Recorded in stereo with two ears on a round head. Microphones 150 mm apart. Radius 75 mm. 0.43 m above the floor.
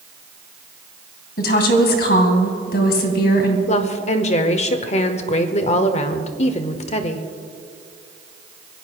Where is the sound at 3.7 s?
40° left (ahead or behind), 1.1 m.